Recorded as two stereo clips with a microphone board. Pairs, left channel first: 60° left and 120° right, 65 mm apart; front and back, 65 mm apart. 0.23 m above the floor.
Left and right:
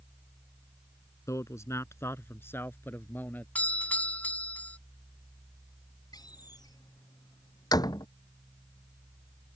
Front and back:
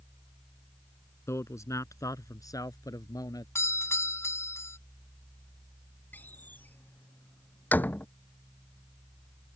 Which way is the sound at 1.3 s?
35° left.